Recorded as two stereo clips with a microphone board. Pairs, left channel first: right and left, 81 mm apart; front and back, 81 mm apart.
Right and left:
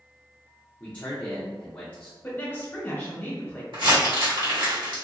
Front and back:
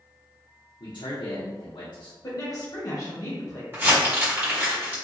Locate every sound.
0.8 s a man speaking: 15° right, 0.6 m
2.2 s a woman speaking: 30° right, 1.0 m
3.7 s crumpling: 115° left, 1.6 m